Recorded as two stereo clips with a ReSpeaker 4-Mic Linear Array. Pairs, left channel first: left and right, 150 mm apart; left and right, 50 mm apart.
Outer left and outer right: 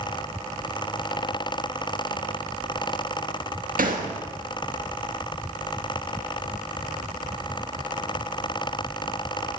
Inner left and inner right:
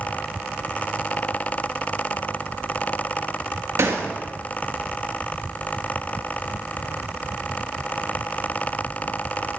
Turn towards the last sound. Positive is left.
turn(degrees=-75)  # may be behind; listen again after turning